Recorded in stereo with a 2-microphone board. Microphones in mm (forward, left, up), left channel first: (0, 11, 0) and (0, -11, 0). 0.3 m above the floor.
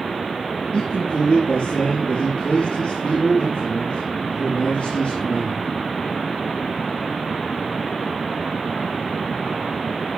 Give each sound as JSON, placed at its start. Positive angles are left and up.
{"t": 0.7, "sound": "a man speaking", "side_deg": 60, "distance_m": 6.0}